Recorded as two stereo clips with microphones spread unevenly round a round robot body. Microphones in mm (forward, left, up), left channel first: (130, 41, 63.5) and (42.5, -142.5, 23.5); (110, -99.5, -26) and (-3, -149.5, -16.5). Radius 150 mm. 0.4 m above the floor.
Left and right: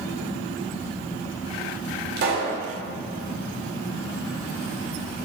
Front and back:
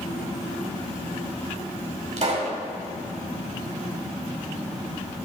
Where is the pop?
135° right, 2 m.